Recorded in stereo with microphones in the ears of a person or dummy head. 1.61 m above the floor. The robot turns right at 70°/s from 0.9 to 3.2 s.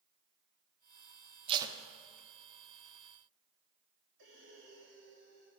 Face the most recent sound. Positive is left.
turn(degrees=-60)  # may be behind; listen again after turning